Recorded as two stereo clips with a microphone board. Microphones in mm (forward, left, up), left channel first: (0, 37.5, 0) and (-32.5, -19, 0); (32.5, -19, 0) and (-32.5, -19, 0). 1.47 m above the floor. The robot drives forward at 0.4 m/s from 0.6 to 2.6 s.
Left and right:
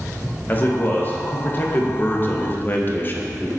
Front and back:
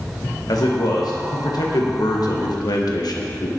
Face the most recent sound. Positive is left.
turn(degrees=5)